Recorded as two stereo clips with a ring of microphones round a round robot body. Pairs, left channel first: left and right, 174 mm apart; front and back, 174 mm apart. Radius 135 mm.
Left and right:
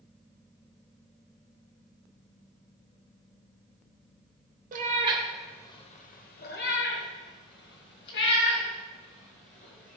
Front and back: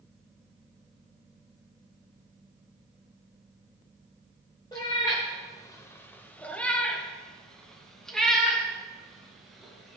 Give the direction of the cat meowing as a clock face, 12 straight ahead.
2 o'clock.